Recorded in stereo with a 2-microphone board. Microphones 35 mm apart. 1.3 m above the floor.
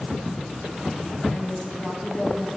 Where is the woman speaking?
70° left (ahead or behind), 8.5 m.